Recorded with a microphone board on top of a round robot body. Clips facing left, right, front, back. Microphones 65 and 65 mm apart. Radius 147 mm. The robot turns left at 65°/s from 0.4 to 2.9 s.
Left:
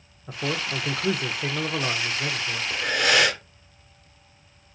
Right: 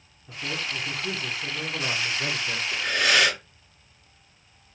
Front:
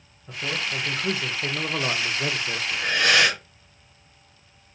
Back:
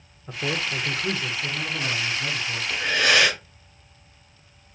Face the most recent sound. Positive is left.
turn(degrees=110)